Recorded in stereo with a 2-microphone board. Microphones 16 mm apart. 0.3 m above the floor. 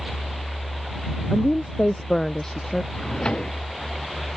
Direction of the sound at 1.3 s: 25° left (ahead or behind).